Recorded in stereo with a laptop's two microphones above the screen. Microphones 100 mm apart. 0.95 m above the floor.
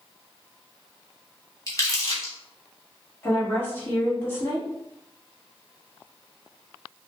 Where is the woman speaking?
20° left (ahead or behind), 1.5 m.